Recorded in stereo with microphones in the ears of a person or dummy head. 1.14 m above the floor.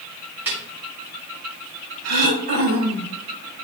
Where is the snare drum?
10° right (ahead or behind), 3.5 m.